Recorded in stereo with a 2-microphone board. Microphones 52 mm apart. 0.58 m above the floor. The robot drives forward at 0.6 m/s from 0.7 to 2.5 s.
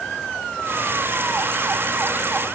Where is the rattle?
I don't hear a rattle.